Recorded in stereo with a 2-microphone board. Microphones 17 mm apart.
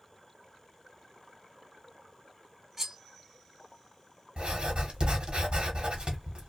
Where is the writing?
85° right, 1.1 m.